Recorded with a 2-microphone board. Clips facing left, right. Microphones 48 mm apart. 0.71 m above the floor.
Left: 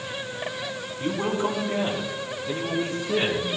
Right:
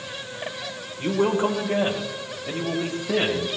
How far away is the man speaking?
About 2.5 m.